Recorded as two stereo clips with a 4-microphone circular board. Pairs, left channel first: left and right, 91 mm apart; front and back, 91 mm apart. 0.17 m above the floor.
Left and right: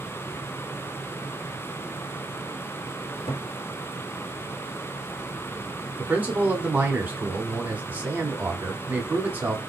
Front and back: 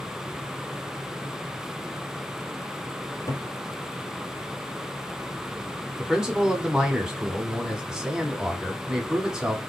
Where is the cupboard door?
55° left, 1.6 m.